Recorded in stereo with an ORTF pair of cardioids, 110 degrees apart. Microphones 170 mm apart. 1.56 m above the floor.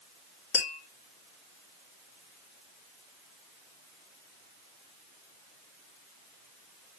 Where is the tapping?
50° left, 3 m.